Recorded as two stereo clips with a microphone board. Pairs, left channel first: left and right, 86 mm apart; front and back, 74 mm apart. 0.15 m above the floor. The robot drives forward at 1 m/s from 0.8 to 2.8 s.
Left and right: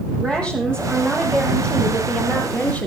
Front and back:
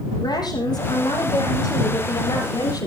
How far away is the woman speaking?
About 6.5 m.